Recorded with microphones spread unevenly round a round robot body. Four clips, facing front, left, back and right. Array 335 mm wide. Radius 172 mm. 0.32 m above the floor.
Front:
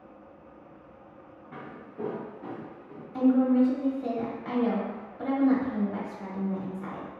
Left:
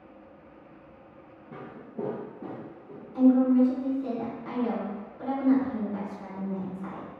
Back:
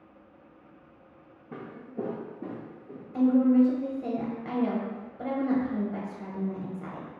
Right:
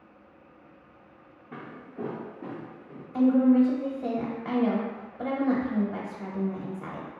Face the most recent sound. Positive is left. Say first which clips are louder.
# even, back 1 dB
turn(degrees=-135)